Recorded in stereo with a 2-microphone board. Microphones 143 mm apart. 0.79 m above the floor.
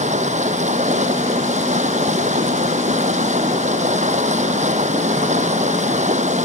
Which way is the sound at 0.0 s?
55° right (ahead or behind).